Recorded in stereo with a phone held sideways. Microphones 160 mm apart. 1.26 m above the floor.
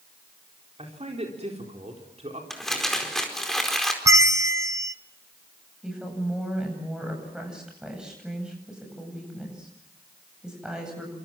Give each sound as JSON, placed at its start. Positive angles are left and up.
{"t": 0.8, "sound": "a man speaking", "side_deg": -40, "distance_m": 4.5}
{"t": 2.5, "sound": "crumpling", "side_deg": 0, "distance_m": 4.5}
{"t": 4.0, "sound": "a bell", "side_deg": -20, "distance_m": 0.9}
{"t": 5.8, "sound": "a woman speaking", "side_deg": -5, "distance_m": 9.0}